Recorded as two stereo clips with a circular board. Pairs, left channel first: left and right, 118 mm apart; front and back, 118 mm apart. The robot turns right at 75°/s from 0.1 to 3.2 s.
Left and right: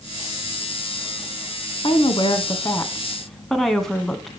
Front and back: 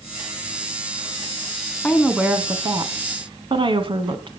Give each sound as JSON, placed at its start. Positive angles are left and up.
{"t": 1.8, "sound": "a woman speaking", "azimuth_deg": 75, "distance_m": 1.6}